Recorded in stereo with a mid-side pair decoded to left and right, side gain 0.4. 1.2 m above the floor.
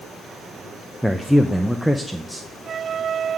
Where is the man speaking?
Straight ahead, 0.6 m.